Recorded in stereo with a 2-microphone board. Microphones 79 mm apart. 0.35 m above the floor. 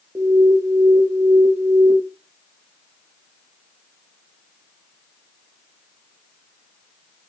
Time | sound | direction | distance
0.1 | an alarm | 35° right (ahead or behind) | 0.6 m